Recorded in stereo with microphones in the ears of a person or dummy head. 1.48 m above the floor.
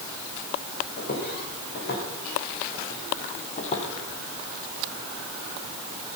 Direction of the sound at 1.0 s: 55° left (ahead or behind).